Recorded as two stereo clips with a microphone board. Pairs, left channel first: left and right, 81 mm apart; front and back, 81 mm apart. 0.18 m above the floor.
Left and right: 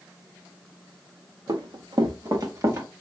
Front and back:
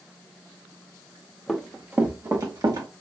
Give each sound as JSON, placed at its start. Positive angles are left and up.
{"t": 1.5, "sound": "running footsteps", "azimuth_deg": -85, "distance_m": 1.4}